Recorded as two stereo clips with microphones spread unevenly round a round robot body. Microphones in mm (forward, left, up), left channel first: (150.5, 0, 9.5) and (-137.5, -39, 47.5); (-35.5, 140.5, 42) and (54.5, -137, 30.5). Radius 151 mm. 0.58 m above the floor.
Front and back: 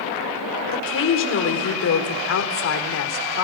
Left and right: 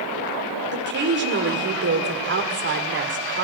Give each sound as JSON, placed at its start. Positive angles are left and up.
{"t": 0.7, "sound": "a woman speaking", "azimuth_deg": -25, "distance_m": 1.7}